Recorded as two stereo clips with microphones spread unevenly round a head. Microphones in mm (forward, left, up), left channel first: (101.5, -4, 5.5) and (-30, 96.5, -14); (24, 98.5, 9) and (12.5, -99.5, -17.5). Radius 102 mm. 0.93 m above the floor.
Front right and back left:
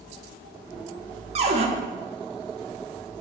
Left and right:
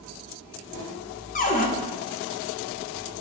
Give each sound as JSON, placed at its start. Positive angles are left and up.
{"t": 1.4, "sound": "a cupboard door", "azimuth_deg": 130, "distance_m": 1.1}